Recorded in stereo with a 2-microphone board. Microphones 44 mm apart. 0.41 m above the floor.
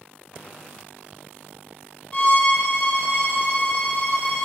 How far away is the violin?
About 1.7 m.